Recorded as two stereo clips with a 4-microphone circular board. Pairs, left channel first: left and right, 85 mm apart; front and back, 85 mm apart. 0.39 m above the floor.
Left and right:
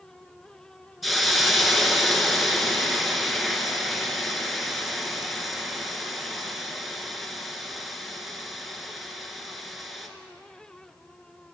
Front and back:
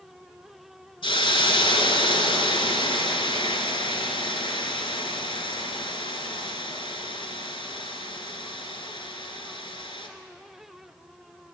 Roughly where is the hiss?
Ahead.